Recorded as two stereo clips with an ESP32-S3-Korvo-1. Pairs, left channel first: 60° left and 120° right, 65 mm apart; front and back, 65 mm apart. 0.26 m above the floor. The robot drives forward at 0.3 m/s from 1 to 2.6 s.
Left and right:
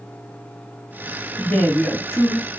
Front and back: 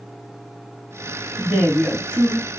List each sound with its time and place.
1.4 s a man speaking: 125° left, 1.2 m; by 2.5 s 140° left, 1.4 m